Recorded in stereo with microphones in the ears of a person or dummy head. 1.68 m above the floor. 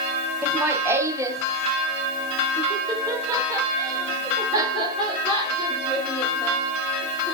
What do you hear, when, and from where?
0.4 s laughter: 15° right (ahead or behind), 1.2 m; by 7.3 s 20° right (ahead or behind), 6 m